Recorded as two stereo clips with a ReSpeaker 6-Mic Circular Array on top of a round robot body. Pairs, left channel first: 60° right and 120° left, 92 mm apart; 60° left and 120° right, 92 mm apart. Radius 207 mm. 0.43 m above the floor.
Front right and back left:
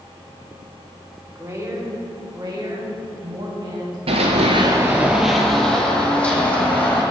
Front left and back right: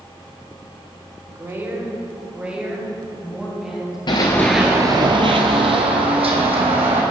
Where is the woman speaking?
Straight behind, 2.5 m; by 4.0 s 150° left, 4.5 m.